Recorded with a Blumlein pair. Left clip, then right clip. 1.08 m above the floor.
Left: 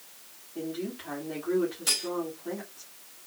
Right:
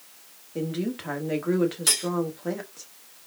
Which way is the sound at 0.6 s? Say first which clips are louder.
Right 5 dB; 55° right.